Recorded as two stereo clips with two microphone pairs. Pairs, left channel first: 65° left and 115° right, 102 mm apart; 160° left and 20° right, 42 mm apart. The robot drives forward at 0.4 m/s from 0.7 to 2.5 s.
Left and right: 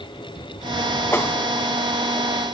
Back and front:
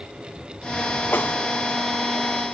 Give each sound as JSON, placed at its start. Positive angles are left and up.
{"t": 1.1, "sound": "a whoosh", "azimuth_deg": 130}